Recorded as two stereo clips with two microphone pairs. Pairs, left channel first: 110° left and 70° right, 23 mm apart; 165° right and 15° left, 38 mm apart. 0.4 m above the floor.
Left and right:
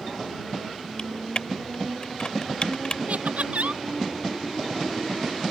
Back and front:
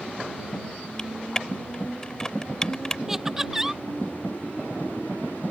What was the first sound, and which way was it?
Typing on a keyboard, 130° left.